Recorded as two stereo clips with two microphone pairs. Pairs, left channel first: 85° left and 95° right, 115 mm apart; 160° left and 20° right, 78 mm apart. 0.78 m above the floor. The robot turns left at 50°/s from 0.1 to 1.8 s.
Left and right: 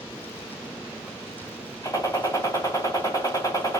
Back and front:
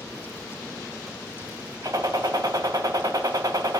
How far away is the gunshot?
About 2 m.